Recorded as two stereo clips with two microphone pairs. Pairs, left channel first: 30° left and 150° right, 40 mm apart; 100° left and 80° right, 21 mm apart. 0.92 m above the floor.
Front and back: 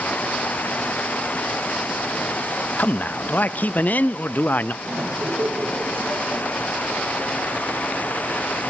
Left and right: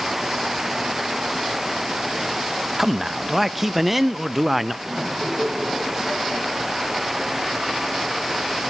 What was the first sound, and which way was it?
A man speaking, straight ahead.